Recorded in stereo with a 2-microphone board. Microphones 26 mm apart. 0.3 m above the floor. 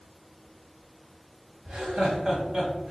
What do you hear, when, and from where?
1.6 s laughter: 55° right (ahead or behind), 1.7 m; by 2.9 s 35° right (ahead or behind), 1.5 m